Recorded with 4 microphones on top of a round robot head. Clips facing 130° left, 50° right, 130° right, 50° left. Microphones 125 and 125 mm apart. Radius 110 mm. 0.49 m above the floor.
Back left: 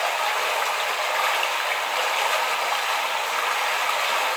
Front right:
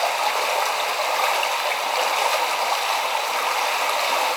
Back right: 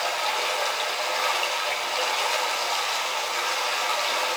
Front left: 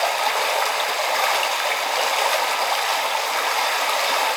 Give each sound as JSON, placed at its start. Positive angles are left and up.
{"t": 0.0, "sound": "running water", "azimuth_deg": 10, "distance_m": 1.1}